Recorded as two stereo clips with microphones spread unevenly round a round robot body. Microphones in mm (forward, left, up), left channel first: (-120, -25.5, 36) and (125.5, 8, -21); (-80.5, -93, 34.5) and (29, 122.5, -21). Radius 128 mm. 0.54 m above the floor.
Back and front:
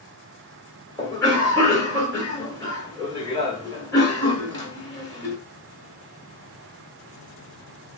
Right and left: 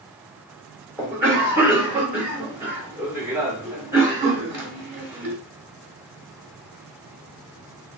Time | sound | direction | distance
1.0 | a cough | 95° left | 1.0 m